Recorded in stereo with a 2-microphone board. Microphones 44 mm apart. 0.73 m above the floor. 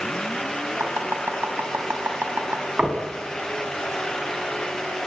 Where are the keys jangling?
I don't hear keys jangling.